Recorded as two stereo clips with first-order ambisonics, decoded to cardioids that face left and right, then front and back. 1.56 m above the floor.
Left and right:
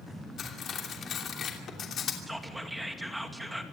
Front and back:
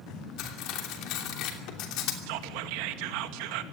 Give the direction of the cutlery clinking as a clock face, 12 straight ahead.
11 o'clock.